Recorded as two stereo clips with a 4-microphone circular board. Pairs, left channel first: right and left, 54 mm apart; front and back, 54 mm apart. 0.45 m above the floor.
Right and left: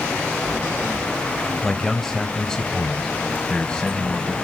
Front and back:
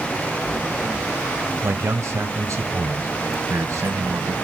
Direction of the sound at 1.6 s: 175° right.